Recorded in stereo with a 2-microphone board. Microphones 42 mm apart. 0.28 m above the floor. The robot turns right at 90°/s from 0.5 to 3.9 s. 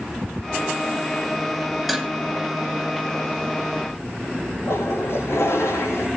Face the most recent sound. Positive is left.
turn(degrees=75)  # may be behind; listen again after turning